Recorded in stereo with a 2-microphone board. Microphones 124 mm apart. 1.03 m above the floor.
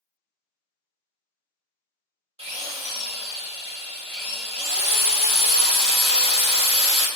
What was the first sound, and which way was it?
A drill, 55° right (ahead or behind).